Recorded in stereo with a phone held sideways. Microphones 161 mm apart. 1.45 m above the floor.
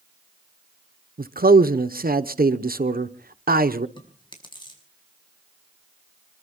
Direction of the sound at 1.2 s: 75° right (ahead or behind).